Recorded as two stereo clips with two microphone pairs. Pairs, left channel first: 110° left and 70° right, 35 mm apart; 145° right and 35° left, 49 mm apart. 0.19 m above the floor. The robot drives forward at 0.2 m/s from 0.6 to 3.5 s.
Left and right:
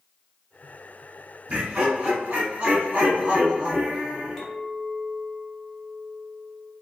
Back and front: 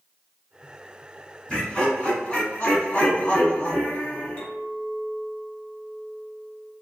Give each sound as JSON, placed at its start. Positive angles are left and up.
{"t": 1.5, "sound": "laughter", "azimuth_deg": -90, "distance_m": 1.7}
{"t": 4.4, "sound": "a clink", "azimuth_deg": -170, "distance_m": 1.0}